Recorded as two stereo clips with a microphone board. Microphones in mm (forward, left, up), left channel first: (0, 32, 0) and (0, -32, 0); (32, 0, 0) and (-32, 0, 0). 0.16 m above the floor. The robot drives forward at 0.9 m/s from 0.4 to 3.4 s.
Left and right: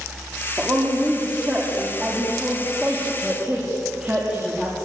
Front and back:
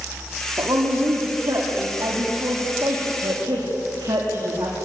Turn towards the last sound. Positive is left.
turn(degrees=-160)